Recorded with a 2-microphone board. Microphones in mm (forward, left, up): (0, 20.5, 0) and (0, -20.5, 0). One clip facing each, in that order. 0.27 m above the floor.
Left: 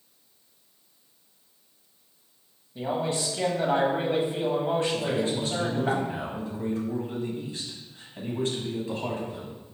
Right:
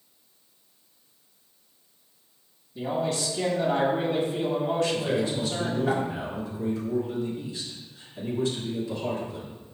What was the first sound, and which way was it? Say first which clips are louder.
A man speaking: even; 30° left (ahead or behind).